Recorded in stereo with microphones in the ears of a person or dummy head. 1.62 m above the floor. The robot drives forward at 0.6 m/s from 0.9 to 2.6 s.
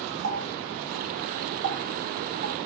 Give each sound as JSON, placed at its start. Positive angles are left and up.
{"t": 0.2, "sound": "a running tap", "side_deg": -65, "distance_m": 3.5}